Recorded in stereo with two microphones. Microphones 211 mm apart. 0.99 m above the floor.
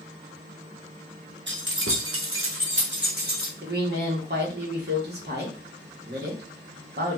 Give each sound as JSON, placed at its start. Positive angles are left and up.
{"t": 1.5, "sound": "keys jangling", "side_deg": -60, "distance_m": 0.8}
{"t": 3.6, "sound": "a woman speaking", "side_deg": -50, "distance_m": 1.4}